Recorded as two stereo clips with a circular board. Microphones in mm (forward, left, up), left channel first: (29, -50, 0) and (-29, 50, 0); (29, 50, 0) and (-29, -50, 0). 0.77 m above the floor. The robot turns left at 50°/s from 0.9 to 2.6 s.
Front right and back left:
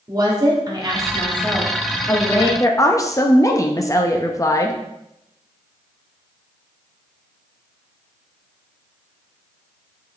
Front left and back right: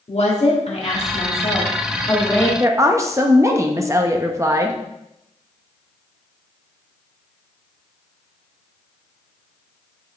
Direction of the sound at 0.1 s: 70° left.